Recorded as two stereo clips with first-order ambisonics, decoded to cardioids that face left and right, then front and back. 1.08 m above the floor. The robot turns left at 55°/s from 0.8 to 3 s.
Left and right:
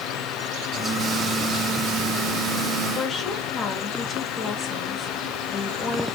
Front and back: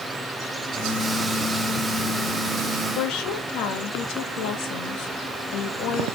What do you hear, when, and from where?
3.0 s a woman speaking: 25° left, 2 m